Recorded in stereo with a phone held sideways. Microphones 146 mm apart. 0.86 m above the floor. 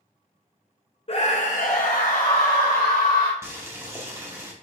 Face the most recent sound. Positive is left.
turn(degrees=-20)  # may be behind; listen again after turning